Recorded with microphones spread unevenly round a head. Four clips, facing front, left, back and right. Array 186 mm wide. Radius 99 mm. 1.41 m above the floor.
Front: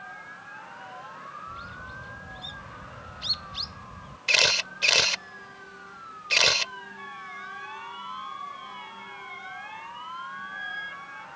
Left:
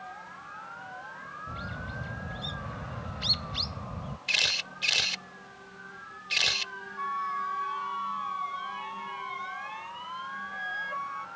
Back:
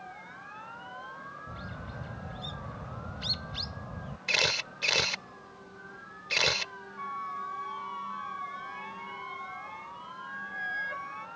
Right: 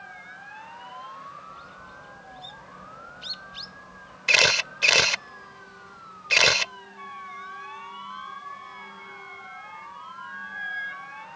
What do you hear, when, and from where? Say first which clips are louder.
1.5 s a bird: left 4 dB, front 2 dB; 100° left
4.3 s a camera shutter: right 15 dB, front 5 dB; 70° right
7.0 s a flute: left 8 dB, back 4 dB; 145° left